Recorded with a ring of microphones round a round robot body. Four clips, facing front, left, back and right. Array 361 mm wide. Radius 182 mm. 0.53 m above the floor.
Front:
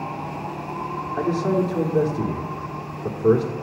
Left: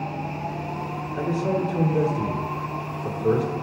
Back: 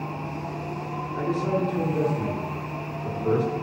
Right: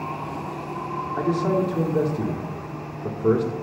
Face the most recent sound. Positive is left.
turn(degrees=-40)